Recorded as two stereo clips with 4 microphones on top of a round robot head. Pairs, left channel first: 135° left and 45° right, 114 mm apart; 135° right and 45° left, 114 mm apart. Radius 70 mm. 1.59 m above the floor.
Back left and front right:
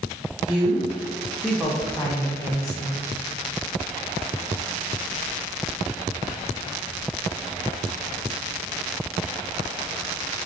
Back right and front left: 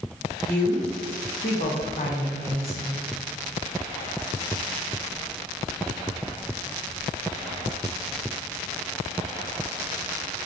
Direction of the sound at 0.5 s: 130° right.